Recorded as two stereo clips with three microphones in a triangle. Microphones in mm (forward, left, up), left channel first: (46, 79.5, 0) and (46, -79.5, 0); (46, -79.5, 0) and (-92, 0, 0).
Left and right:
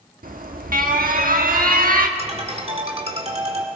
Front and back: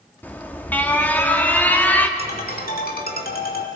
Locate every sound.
0.2 s an alarm: 110° right, 1.1 m
2.2 s a ringtone: 40° right, 2 m